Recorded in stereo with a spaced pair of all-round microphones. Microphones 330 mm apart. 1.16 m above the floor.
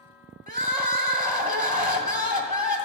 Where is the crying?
25° right (ahead or behind), 1.2 m.